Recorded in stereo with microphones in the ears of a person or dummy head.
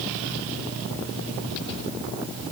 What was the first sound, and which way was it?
Only background noise.